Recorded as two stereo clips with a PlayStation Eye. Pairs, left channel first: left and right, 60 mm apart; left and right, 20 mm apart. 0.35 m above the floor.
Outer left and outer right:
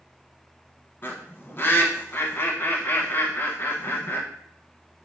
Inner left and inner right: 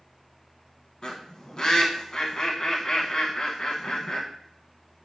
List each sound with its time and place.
1.0 s a bird: 40° left (ahead or behind), 0.6 m